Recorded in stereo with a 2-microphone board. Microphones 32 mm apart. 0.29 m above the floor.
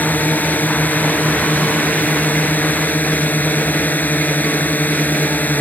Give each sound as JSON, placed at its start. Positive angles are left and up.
{"t": 0.0, "sound": "a drone", "side_deg": 65}